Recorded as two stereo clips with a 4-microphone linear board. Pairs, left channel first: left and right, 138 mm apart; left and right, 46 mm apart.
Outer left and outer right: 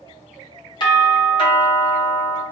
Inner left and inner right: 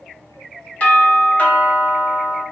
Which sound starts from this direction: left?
A doorbell, at 0.8 s.